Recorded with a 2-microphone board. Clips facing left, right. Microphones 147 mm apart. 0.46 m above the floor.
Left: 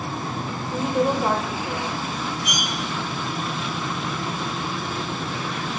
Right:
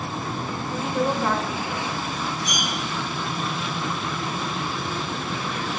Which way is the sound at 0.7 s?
20° left (ahead or behind).